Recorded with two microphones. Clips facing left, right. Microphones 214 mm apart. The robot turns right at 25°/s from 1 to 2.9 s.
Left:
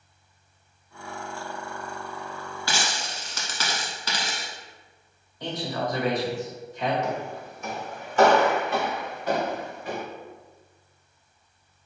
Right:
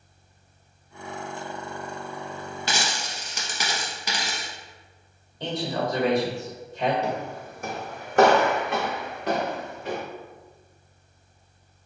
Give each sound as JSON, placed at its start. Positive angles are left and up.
{"t": 2.7, "sound": "a dropped coin", "side_deg": -20, "distance_m": 1.1}
{"t": 5.4, "sound": "a man speaking", "side_deg": -25, "distance_m": 1.8}
{"t": 7.0, "sound": "footsteps", "side_deg": -35, "distance_m": 0.8}